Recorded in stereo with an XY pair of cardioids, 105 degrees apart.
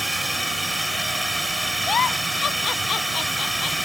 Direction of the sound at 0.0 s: 5° right.